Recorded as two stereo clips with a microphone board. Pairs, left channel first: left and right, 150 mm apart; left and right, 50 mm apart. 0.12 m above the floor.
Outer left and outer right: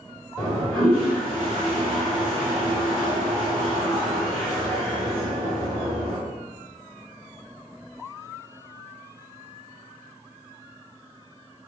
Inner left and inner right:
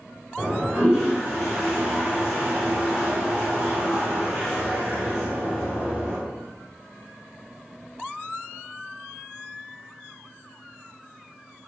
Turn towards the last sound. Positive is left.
turn(degrees=0)  # may be behind; listen again after turning